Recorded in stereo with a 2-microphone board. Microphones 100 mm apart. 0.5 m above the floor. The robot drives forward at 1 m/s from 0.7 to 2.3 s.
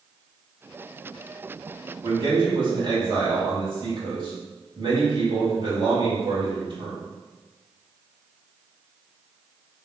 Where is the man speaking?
55° right (ahead or behind), 2 m.